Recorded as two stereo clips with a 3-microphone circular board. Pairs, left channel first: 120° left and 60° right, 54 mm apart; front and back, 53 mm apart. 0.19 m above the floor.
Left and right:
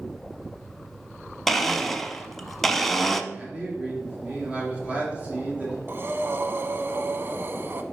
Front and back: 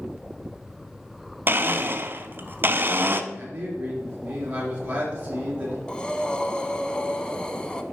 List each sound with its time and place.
1.5 s a blender: 160° right, 0.6 m
3.3 s a man speaking: 125° right, 3.5 m
5.9 s breathing: 65° right, 0.7 m